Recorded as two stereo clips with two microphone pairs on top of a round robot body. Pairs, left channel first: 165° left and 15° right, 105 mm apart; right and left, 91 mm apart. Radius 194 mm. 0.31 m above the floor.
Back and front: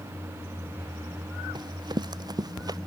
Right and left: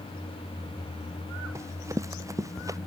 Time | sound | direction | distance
1.6 | running footsteps | 30° left | ?